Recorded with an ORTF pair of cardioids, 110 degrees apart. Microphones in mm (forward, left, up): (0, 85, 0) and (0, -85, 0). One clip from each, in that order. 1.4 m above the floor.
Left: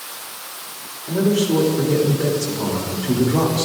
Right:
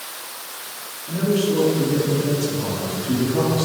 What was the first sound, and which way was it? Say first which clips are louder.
A man speaking: left 2 dB; 40° left.